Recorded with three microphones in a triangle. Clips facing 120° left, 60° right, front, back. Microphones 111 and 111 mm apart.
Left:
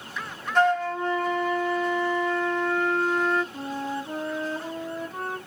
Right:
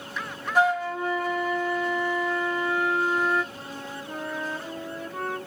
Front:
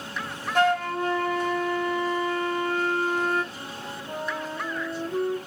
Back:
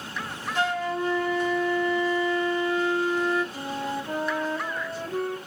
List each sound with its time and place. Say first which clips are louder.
0.6 s a flute: left 1 dB, front 4 dB; 20° left, 0.6 m
3.5 s a flute: left 7 dB, back 7 dB; 175° left, 0.9 m